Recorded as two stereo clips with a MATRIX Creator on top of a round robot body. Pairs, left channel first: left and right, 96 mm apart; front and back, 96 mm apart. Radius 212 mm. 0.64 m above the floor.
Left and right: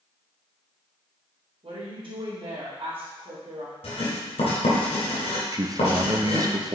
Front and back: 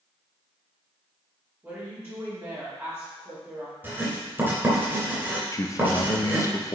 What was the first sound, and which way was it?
A woman speaking, 115° right.